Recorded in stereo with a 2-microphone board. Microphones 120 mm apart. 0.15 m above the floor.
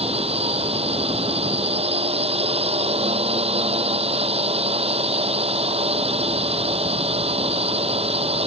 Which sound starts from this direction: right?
A drone, at 0.0 s.